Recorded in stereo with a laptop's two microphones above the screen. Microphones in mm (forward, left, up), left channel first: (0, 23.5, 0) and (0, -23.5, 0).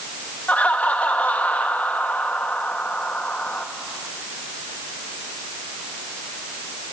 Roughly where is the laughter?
Left.